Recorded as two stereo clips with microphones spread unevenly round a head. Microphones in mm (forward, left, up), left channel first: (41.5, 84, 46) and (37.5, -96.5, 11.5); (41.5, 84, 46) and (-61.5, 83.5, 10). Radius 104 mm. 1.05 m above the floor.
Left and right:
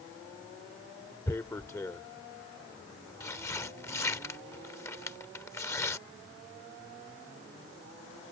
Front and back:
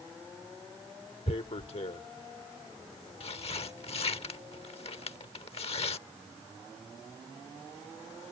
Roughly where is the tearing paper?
Ahead.